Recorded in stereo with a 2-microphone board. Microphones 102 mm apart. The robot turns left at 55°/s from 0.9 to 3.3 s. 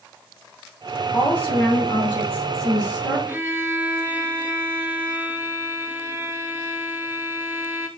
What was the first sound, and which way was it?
A woman speaking, 30° left.